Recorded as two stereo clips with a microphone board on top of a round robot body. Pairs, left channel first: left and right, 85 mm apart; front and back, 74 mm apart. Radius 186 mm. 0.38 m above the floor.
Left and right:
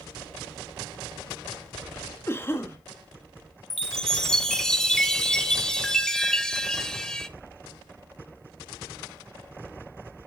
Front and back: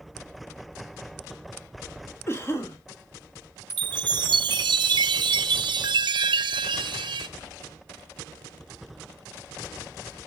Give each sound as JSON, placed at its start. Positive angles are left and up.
{"t": 2.3, "sound": "a cough", "azimuth_deg": 35, "distance_m": 1.8}
{"t": 3.7, "sound": "a chime", "azimuth_deg": 175, "distance_m": 0.6}